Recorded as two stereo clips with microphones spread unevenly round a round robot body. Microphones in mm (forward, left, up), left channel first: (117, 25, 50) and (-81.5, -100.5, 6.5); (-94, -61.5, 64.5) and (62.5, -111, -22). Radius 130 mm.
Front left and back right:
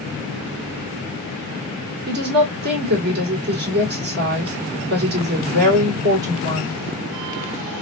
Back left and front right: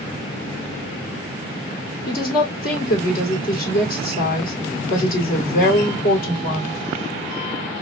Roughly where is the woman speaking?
Behind right.